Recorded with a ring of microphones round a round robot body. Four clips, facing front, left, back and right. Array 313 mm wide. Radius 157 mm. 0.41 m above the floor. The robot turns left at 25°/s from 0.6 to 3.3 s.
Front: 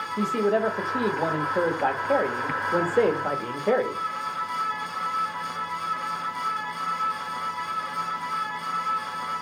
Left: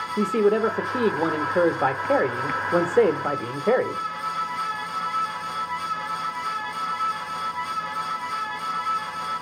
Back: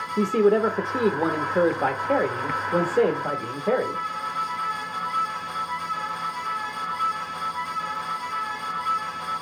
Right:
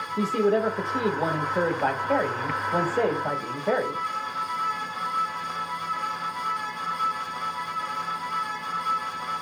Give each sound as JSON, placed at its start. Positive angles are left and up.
{"t": 0.2, "sound": "a man speaking", "azimuth_deg": 145, "distance_m": 1.1}